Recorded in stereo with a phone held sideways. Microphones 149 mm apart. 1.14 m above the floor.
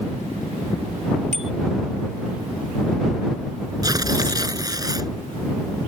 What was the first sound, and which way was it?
A bicycle bell, 55° right (ahead or behind).